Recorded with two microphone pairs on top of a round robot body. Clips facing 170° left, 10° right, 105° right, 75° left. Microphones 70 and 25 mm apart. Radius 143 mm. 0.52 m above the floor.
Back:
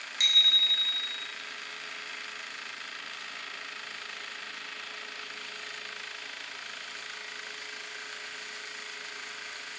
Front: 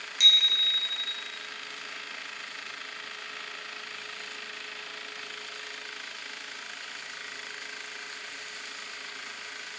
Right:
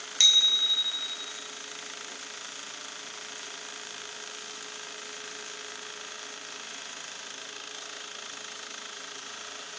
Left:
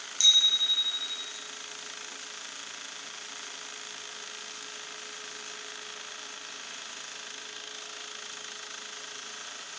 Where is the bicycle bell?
140° right, 2 m.